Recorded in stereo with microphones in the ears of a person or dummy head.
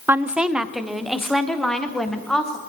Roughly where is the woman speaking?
Centre.